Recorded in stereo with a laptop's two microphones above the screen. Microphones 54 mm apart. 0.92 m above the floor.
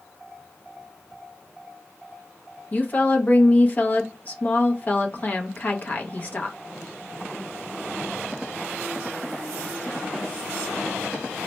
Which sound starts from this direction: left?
A woman speaking, at 2.7 s.